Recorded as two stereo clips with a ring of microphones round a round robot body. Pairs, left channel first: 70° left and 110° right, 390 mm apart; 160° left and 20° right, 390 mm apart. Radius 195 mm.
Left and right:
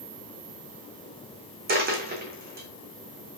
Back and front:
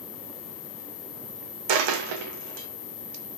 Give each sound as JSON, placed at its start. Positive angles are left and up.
{"t": 1.7, "sound": "a dropped coin", "azimuth_deg": -45, "distance_m": 4.0}